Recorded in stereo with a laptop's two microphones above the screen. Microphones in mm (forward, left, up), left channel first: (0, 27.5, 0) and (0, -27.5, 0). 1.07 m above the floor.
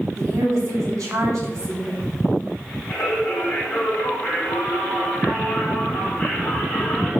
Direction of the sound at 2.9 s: 10° left (ahead or behind).